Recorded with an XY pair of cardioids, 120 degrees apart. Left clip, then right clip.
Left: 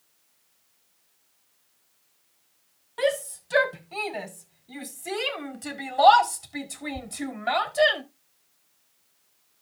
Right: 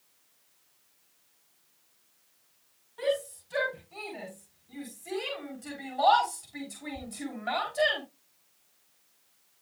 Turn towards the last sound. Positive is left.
turn(degrees=30)